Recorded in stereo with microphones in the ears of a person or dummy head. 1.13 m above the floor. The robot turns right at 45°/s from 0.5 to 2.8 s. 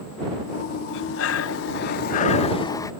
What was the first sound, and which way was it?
Breathing, 80° left.